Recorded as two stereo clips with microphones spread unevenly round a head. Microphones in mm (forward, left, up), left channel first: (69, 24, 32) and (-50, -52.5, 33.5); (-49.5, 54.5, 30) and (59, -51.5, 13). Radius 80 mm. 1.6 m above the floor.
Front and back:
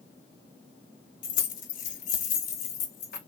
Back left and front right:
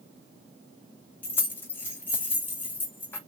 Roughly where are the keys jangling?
Ahead left.